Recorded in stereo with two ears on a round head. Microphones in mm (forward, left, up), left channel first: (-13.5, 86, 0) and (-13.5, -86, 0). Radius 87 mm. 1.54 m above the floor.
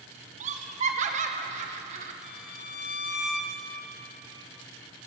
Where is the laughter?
35° right (ahead or behind), 1.2 m.